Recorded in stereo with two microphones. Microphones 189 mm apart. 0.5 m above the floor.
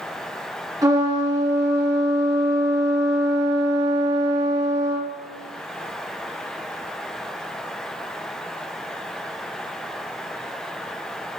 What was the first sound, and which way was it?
A trumpet, 20° right (ahead or behind).